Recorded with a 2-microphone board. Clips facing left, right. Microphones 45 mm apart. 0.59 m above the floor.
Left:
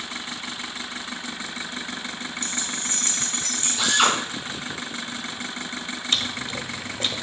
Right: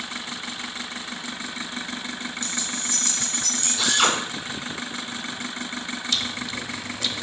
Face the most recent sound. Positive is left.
turn(degrees=40)  # may be behind; listen again after turning